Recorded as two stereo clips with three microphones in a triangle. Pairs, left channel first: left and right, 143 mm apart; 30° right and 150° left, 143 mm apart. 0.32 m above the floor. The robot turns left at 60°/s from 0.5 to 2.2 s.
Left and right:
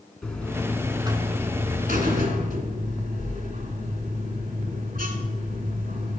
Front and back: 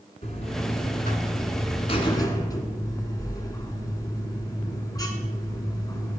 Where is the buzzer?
5° left, 1.2 m; by 6.2 s 95° right, 1.2 m.